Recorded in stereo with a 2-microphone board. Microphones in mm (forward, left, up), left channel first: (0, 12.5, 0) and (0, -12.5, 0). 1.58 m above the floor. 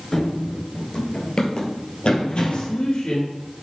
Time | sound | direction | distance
0.1 | running footsteps | 15° left (ahead or behind) | 1.6 m
2.5 | a man speaking | 85° left | 2.5 m